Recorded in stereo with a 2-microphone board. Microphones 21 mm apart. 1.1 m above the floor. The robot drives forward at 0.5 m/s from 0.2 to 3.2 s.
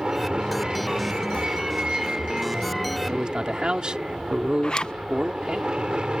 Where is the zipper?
35° left (ahead or behind).